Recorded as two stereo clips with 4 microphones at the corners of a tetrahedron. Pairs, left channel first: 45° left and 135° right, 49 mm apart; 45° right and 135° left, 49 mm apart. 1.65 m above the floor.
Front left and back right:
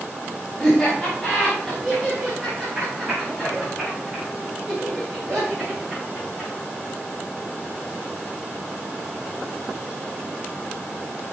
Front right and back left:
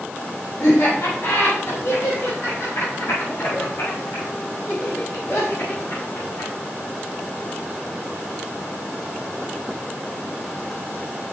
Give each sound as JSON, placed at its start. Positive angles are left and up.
{"t": 0.6, "sound": "laughter", "azimuth_deg": -40, "distance_m": 3.0}